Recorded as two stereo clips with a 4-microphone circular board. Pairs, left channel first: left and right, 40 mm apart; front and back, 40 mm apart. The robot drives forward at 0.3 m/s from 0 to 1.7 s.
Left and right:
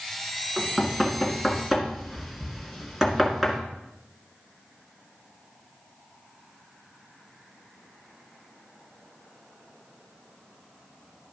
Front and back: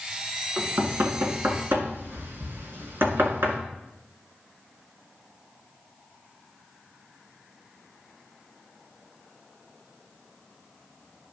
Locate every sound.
0.6 s knocking: 170° right, 1.6 m; by 3.6 s 175° right, 2.0 m